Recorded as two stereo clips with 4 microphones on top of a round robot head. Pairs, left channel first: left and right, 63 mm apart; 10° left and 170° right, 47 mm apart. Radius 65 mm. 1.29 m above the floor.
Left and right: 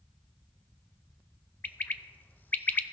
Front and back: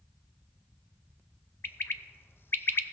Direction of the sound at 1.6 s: 30° left.